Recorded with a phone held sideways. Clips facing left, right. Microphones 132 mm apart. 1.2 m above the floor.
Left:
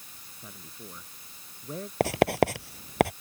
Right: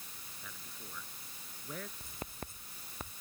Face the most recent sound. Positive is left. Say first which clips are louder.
# left 24 dB
turn(degrees=85)